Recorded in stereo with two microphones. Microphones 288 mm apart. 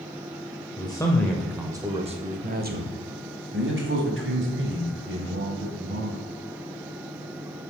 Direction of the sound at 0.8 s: 15° left (ahead or behind).